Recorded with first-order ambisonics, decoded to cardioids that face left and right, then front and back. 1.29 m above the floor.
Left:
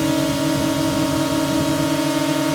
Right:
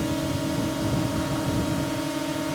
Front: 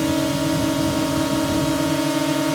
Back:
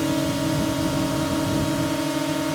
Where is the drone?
70° left; by 2.5 s 65° left.